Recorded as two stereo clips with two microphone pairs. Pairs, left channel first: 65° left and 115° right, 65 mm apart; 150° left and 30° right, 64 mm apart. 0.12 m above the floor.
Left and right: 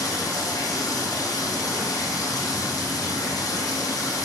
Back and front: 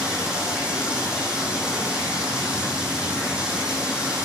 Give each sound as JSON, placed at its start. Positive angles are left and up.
{"t": 0.0, "sound": "running water", "azimuth_deg": 45, "distance_m": 3.5}